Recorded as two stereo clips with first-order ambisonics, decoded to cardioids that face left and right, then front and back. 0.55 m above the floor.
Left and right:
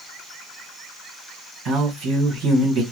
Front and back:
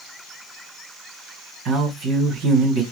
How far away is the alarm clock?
No alarm clock in this recording.